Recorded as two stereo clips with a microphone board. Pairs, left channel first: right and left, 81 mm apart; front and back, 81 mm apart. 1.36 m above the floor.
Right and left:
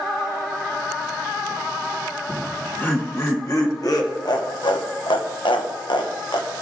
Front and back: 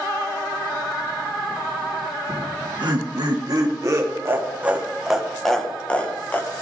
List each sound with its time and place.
2.3 s laughter: 160° right, 1.5 m; by 6.5 s 65° right, 1.4 m